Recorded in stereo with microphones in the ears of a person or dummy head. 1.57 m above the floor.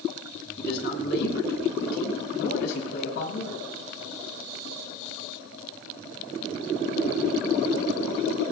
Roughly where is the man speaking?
Left.